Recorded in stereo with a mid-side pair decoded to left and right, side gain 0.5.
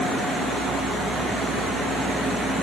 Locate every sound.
Only background noise.